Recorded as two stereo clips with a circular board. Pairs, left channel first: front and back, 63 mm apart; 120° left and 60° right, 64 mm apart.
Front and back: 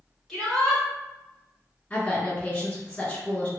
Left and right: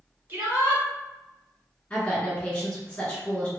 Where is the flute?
No flute in this recording.